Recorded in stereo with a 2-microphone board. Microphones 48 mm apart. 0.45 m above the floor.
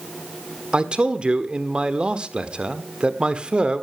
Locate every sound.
0.7 s a man speaking: 25° right (ahead or behind), 1.2 m